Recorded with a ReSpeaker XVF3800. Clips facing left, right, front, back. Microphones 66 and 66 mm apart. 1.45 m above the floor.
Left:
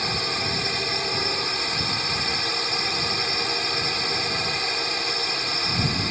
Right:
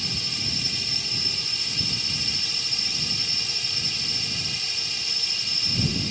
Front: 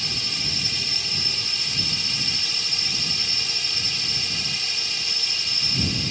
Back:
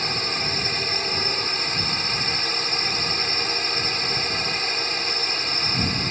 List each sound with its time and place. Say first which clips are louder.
0.0 s a drone: left 8 dB, back 6 dB; 130° left